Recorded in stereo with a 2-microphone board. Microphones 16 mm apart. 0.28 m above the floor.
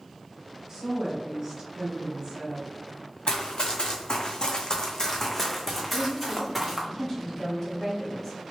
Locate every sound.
0.7 s a woman speaking: 45° right (ahead or behind), 1.5 m
3.3 s running footsteps: 75° left (ahead or behind), 1.2 m; by 6.9 s 10° right (ahead or behind), 1.5 m
5.9 s a woman speaking: 20° left (ahead or behind), 1.9 m